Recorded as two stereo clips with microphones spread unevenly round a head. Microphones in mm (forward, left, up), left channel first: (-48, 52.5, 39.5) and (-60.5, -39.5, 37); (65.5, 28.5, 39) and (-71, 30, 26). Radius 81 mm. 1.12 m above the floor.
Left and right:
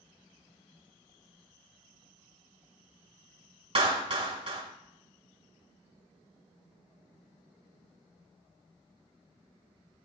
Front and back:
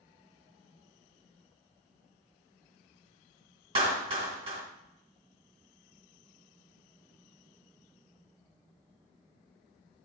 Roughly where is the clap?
Behind right.